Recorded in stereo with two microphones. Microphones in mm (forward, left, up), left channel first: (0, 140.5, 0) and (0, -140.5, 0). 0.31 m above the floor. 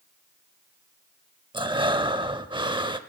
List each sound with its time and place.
1.5 s breathing: 15° right (ahead or behind), 0.6 m